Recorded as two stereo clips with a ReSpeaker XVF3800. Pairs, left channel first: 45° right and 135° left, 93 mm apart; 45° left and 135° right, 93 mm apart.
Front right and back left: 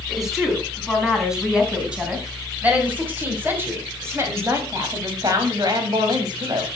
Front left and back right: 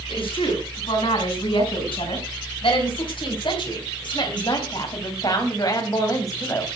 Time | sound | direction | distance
0.1 | a woman speaking | 45° left | 6 m